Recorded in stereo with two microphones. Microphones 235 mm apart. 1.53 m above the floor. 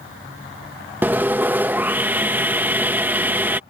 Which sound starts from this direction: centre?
Sawing, at 1.0 s.